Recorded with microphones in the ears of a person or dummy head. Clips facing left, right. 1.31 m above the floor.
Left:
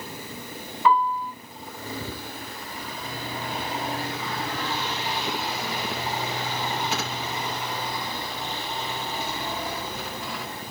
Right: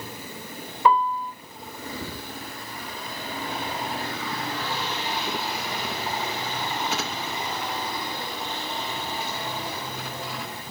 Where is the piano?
40° right (ahead or behind), 1.3 m.